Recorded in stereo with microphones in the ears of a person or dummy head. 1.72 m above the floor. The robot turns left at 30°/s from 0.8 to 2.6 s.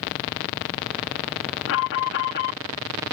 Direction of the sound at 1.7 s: 70° left (ahead or behind).